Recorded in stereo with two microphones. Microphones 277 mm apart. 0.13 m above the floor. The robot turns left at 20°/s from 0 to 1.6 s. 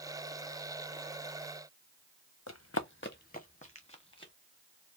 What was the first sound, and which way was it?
Running footsteps, 65° left (ahead or behind).